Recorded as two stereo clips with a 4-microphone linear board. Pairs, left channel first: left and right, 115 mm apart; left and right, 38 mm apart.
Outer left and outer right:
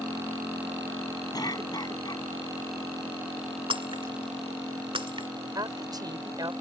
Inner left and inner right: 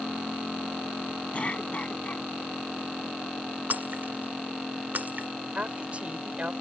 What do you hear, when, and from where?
1.3 s a cough: 35° left (ahead or behind)
3.7 s breaking glass: 50° right (ahead or behind)
5.5 s a woman speaking: 35° right (ahead or behind)